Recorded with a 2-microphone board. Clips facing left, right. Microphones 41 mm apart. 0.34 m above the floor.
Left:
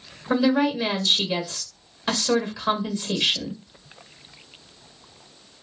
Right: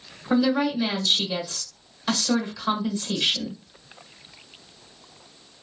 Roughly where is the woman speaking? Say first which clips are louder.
Left 1 dB; left.